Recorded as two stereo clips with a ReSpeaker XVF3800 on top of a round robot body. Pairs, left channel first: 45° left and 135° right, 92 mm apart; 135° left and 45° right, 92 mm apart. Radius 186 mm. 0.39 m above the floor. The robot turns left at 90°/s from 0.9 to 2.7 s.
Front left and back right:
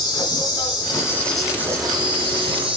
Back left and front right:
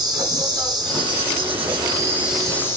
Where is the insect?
Straight ahead, 1.1 m; by 2.8 s 160° right, 1.1 m.